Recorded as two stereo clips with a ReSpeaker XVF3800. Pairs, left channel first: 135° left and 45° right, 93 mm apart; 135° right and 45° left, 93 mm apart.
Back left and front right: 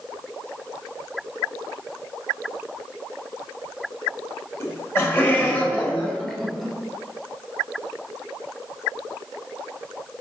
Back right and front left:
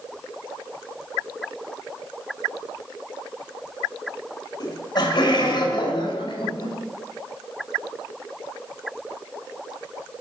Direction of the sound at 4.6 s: 170° right.